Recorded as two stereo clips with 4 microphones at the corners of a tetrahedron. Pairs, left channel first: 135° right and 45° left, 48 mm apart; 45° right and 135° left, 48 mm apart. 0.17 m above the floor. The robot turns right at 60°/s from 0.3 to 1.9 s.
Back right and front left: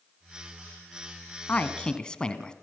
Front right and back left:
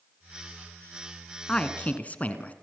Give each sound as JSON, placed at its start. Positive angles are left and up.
{"t": 1.5, "sound": "a man speaking", "azimuth_deg": -100, "distance_m": 1.7}